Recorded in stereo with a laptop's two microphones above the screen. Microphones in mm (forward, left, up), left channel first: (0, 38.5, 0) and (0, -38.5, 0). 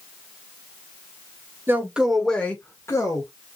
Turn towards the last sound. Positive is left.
turn(degrees=45)  # may be behind; listen again after turning